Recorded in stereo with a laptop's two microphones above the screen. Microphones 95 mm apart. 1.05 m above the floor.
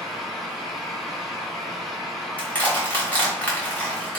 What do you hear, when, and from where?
0.0 s a fan: centre (ahead or behind), 0.8 m
2.4 s crushing: 15° left (ahead or behind), 0.9 m